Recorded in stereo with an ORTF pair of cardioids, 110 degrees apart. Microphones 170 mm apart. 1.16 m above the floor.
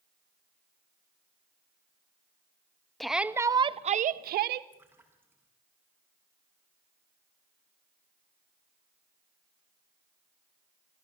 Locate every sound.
3.0 s a shout: straight ahead, 1.4 m; by 4.6 s 75° right, 1.5 m
4.7 s a splash: 10° right, 7.5 m